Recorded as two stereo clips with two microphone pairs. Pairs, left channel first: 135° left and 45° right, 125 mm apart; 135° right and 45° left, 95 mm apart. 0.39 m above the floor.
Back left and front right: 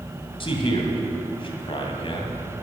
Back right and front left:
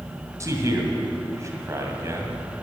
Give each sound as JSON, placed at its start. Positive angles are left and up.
{"t": 0.4, "sound": "a man speaking", "azimuth_deg": 100, "distance_m": 2.0}